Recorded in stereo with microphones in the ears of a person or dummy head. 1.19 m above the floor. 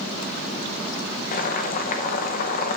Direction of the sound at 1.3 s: 45° left (ahead or behind).